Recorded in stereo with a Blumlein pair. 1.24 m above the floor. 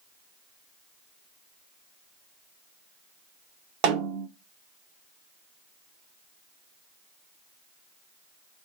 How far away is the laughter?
No laughter in this recording.